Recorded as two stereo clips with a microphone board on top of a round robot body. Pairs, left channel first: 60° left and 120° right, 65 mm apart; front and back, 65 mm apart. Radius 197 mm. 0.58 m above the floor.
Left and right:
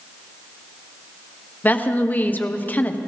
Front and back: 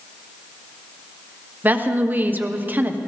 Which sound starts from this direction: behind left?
A woman speaking, at 1.6 s.